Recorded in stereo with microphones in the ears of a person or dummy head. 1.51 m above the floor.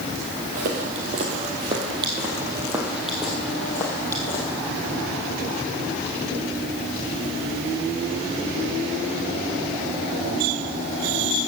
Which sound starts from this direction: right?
Footsteps, at 0.6 s.